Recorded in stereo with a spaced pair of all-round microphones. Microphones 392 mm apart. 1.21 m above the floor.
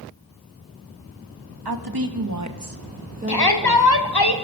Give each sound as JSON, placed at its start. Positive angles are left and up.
{"t": 1.6, "sound": "a woman speaking", "side_deg": -75, "distance_m": 1.7}
{"t": 3.3, "sound": "a shout", "side_deg": 70, "distance_m": 1.8}